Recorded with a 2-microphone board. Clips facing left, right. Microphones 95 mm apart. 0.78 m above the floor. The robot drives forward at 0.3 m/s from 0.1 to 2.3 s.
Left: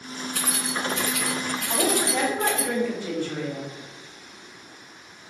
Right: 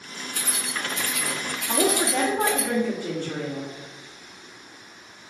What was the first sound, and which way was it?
Keys jangling, 80° left.